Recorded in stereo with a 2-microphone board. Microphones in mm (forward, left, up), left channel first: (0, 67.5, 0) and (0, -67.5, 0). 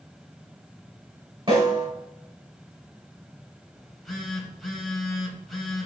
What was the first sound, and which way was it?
A snare drum, 35° right (ahead or behind).